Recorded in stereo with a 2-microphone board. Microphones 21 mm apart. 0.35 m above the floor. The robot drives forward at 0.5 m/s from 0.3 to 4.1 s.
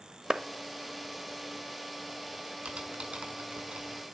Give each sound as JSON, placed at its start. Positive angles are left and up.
{"t": 0.3, "sound": "a clap", "side_deg": -35, "distance_m": 1.2}
{"t": 2.6, "sound": "typing on a keyboard", "side_deg": -70, "distance_m": 3.5}